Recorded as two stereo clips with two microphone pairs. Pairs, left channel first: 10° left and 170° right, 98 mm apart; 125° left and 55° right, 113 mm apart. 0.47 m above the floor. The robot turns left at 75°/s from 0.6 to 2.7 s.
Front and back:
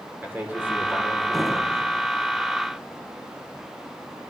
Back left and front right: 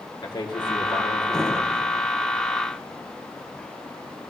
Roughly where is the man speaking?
Behind left.